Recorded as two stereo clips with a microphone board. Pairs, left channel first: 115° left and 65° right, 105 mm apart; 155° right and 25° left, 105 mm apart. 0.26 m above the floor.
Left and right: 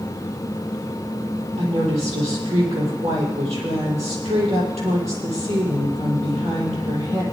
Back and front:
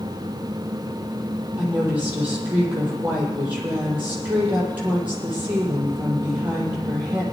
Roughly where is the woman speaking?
Ahead right.